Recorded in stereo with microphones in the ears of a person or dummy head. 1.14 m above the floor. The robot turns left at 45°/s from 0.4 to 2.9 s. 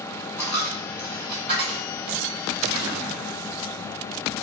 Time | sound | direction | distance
0.4 | a dropped coin | 15° left (ahead or behind) | 1.0 m